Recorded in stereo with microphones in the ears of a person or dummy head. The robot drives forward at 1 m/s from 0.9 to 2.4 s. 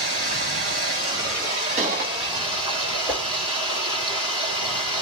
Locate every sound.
0.0 s running water: 60° right (ahead or behind), 1.4 m; by 5.0 s 30° right (ahead or behind), 2.5 m
1.8 s a gunshot: 50° right (ahead or behind), 1.3 m; by 2.1 s 65° right (ahead or behind), 1.1 m
3.1 s a whoosh: centre (ahead or behind), 1.4 m